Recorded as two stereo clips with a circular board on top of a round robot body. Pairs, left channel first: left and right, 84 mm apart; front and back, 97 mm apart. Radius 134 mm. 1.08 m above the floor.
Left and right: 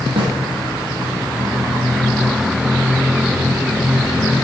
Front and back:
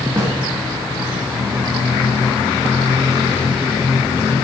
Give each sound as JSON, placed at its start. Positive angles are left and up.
{"t": 0.2, "sound": "a snare drum", "azimuth_deg": -115, "distance_m": 1.8}